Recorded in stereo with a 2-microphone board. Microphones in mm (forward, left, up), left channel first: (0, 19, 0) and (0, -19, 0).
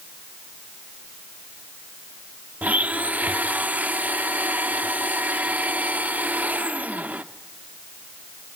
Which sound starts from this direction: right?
A blender, at 2.6 s.